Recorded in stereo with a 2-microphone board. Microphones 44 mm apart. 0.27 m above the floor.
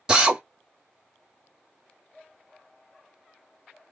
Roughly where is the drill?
Centre.